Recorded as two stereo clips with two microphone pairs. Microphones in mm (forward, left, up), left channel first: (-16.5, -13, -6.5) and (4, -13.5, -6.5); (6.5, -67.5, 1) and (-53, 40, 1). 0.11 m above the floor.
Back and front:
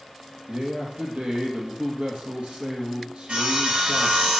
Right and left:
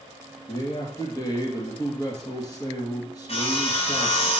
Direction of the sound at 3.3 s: 25° right.